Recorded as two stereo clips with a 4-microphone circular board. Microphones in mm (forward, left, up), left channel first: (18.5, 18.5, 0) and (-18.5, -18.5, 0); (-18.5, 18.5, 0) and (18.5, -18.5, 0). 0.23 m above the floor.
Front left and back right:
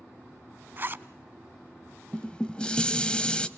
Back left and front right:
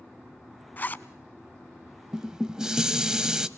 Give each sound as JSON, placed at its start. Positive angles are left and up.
{"t": 0.8, "sound": "a zipper", "azimuth_deg": -175, "distance_m": 0.7}
{"t": 2.1, "sound": "dishes clattering", "azimuth_deg": 10, "distance_m": 0.7}